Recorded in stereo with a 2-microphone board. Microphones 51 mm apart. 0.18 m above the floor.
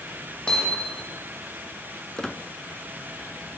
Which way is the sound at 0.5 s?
15° left (ahead or behind).